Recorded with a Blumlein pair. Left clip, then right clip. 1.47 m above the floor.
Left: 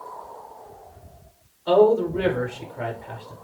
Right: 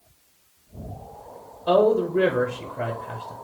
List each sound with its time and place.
1.7 s a man speaking: 5° right, 0.5 m